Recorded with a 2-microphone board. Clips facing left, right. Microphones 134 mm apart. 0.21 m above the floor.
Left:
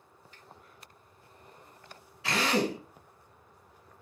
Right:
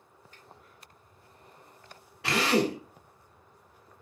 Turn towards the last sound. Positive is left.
turn(degrees=-65)  # may be behind; listen again after turning